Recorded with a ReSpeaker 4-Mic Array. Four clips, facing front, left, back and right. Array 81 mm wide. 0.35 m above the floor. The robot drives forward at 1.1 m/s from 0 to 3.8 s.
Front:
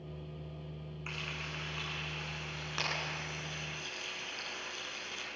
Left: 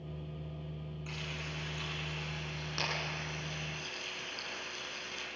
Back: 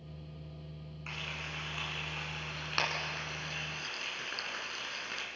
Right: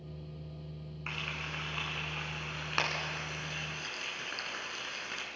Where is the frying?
85° right, 4 m; by 5.3 s 125° right, 4.5 m.